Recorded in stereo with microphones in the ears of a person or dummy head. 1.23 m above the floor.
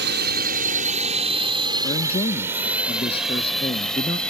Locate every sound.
0.0 s a drone: 65° right (ahead or behind); by 4.3 s centre (ahead or behind)
1.8 s a man speaking: 30° left (ahead or behind)